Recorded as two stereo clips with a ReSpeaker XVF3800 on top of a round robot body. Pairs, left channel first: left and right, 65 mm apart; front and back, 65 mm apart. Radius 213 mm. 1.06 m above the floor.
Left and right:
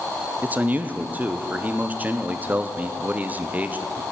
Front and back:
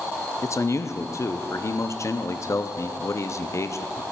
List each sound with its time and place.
0.4 s a man speaking: 30° right, 0.8 m